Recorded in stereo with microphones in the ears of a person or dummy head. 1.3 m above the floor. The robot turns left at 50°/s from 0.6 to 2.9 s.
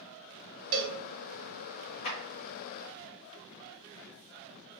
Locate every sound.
0.7 s a cowbell: 70° right (ahead or behind), 0.5 m; by 1.0 s 75° right (ahead or behind), 0.5 m
2.0 s a clap: 45° left (ahead or behind), 1.3 m; by 2.2 s 55° left (ahead or behind), 1.3 m